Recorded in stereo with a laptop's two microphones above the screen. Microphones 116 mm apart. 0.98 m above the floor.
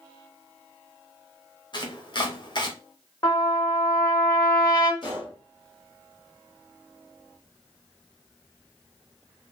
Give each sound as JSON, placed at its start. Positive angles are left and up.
{"t": 1.7, "sound": "chopping", "side_deg": 40, "distance_m": 0.7}
{"t": 3.2, "sound": "a trumpet", "side_deg": 30, "distance_m": 1.2}
{"t": 5.0, "sound": "a gunshot", "side_deg": 45, "distance_m": 1.3}